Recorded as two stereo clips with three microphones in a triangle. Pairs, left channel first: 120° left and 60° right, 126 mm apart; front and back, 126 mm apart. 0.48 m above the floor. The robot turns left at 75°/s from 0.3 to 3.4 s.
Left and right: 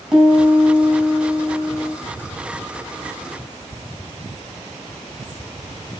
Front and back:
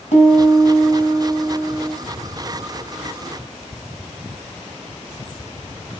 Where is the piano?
25° left, 4 m; by 1.9 s 100° right, 4 m.